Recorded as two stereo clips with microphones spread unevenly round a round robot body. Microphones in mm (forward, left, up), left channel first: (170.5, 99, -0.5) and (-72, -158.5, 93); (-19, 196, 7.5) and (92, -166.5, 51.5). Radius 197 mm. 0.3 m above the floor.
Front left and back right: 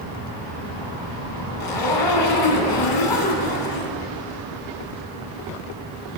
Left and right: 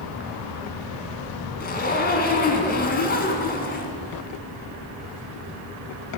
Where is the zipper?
40° left, 2.0 m.